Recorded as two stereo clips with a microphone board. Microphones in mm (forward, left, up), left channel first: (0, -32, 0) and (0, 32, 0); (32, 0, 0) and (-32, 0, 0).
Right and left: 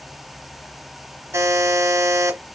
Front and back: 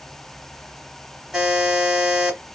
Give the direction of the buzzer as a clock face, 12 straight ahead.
9 o'clock.